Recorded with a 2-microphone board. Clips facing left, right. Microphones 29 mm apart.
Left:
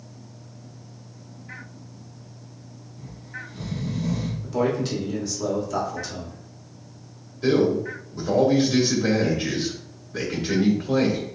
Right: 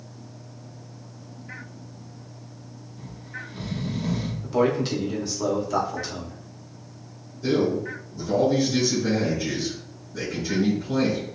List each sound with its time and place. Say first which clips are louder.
3.0 s snoring: even; 30° right (ahead or behind), 1.1 m
4.4 s a man speaking: right 2 dB; 20° right (ahead or behind), 1.5 m
7.4 s a man speaking: left 3 dB; 75° left (ahead or behind), 2.5 m